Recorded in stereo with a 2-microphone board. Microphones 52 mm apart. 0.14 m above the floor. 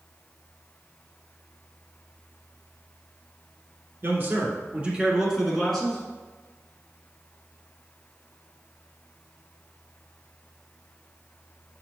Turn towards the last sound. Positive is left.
turn(degrees=15)  # may be behind; listen again after turning